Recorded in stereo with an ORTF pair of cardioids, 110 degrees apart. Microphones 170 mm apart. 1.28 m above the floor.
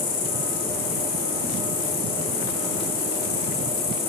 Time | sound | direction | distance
0.0 | an insect | 55° left | 1.8 m